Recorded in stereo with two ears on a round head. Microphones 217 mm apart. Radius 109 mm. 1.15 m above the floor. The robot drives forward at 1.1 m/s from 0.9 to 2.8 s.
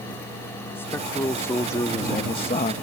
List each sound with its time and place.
0.8 s a man speaking: 10° left (ahead or behind); by 2.7 s 30° left (ahead or behind)